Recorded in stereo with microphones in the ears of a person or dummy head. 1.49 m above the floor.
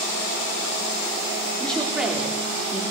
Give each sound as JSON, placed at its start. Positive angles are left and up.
{"t": 1.6, "sound": "a woman speaking", "side_deg": 0, "distance_m": 3.5}